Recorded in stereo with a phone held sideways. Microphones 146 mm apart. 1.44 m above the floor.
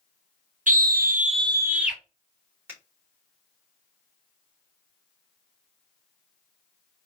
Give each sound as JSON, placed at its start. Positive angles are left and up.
{"t": 0.7, "sound": "a scream", "side_deg": -65, "distance_m": 0.7}
{"t": 2.7, "sound": "a finger snap", "side_deg": -15, "distance_m": 2.5}